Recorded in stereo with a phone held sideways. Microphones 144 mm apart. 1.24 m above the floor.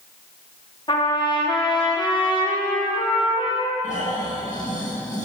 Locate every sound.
0.9 s a trumpet: 35° left (ahead or behind), 0.9 m
3.8 s snoring: 60° left (ahead or behind), 1.6 m